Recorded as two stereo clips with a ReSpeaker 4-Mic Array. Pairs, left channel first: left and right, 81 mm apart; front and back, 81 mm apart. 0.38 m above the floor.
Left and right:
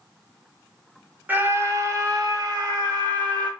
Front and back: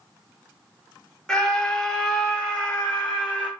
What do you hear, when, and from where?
1.3 s a scream: 70° right, 1.0 m; by 3.5 s 80° right, 2.5 m